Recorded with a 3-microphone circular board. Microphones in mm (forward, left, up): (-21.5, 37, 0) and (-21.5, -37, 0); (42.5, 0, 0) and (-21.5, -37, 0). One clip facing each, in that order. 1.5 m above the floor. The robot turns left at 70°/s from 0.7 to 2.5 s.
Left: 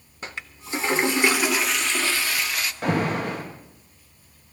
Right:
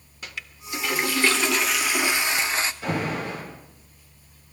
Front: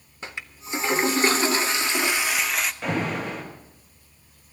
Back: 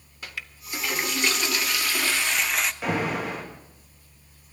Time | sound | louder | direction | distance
0.2 | a toilet flushing | left 2 dB, front 2 dB | 70° left | 0.6 m
2.8 | an alarm | left 3 dB, back 1 dB | 125° left | 2.5 m